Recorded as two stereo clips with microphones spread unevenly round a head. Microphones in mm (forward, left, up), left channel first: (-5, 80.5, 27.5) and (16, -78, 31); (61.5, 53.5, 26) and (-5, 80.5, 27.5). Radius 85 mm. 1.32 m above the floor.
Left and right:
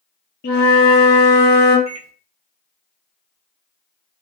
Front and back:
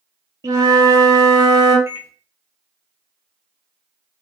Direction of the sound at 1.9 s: 145° left.